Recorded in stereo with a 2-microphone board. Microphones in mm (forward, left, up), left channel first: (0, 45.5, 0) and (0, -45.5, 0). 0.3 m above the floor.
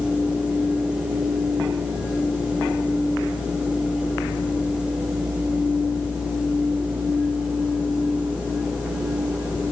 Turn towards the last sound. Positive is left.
No sound to turn to.